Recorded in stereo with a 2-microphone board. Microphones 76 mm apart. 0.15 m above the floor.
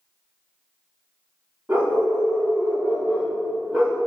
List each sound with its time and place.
1.7 s a dog barking: 25° right (ahead or behind), 6 m; by 4.0 s 10° right (ahead or behind), 5.5 m